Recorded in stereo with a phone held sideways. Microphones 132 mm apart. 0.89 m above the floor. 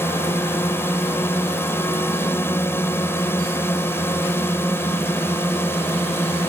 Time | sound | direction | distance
0.0 | a drone | 15° left (ahead or behind) | ?